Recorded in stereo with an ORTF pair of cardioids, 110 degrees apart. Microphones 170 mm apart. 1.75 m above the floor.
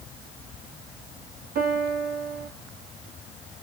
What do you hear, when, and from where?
1.6 s a piano: 70° right, 3 m